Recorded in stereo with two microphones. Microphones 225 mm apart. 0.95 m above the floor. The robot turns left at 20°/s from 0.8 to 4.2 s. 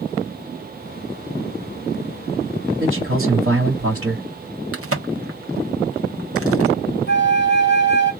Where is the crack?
85° right, 1.2 m.